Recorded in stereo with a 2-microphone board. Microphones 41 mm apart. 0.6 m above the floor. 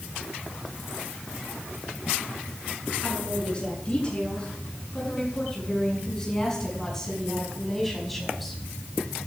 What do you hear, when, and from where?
3.0 s a woman speaking: 25° left (ahead or behind), 9.5 m; by 8.6 s 5° right (ahead or behind), 5 m